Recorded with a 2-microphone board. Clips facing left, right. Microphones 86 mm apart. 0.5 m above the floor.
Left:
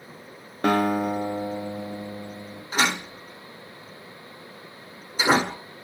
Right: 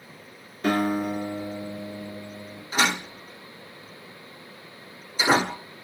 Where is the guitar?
85° left, 0.9 m.